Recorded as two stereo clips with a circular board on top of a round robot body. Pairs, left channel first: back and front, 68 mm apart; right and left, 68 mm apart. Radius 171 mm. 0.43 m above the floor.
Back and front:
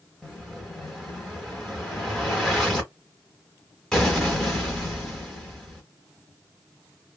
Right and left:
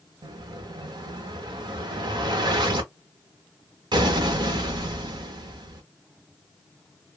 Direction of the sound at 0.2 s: 95° left.